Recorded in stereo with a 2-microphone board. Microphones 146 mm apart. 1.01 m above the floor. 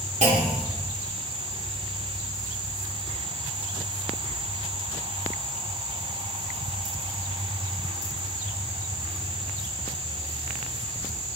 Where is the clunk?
50° right (ahead or behind), 2 m.